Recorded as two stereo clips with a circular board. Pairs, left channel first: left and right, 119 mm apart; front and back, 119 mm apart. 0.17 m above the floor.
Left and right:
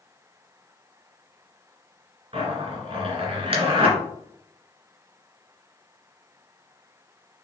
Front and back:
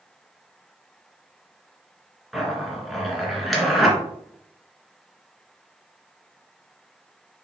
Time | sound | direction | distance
2.3 | a zipper | 90° right | 2 m